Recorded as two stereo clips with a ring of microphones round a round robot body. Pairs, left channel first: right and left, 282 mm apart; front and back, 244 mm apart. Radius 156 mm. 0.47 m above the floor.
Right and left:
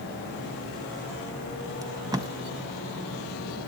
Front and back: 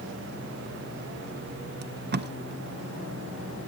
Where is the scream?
I don't hear a scream.